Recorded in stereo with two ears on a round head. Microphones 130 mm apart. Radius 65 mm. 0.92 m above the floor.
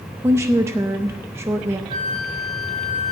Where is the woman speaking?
15° right (ahead or behind), 0.5 m.